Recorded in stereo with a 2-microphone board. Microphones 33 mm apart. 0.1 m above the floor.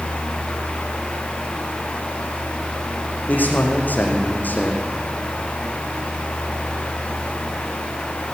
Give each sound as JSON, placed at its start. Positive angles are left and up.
{"t": 3.3, "sound": "a man speaking", "side_deg": 55, "distance_m": 4.5}